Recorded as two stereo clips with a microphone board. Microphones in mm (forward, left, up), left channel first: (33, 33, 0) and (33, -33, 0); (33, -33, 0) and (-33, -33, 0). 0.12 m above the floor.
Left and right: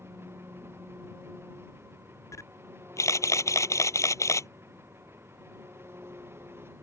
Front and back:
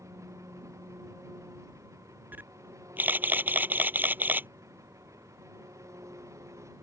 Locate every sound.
0.0 s an engine running: 140° right
2.3 s a camera shutter: 120° left